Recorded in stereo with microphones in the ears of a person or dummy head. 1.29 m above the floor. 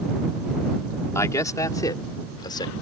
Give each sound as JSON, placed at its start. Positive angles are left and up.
{"t": 1.1, "sound": "a man speaking", "side_deg": 20}